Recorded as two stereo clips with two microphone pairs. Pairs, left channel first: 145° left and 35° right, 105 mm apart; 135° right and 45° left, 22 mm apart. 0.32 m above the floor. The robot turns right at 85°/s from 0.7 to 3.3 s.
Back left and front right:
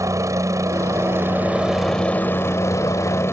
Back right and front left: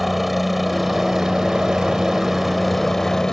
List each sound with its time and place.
0.0 s a helicopter: 40° right; by 3.3 s straight behind